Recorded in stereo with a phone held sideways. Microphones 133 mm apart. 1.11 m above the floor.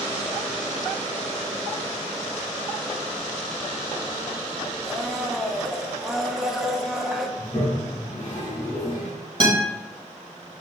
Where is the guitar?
35° right (ahead or behind), 1.5 m.